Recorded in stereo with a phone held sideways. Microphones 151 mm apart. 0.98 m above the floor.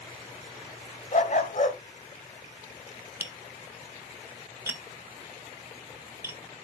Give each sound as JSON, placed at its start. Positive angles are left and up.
{"t": 1.1, "sound": "a dog barking", "side_deg": 50, "distance_m": 1.6}
{"t": 3.2, "sound": "tapping", "side_deg": -15, "distance_m": 1.8}